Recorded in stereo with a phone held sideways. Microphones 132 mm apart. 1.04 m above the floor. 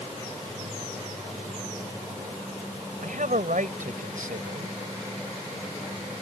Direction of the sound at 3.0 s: 85° right.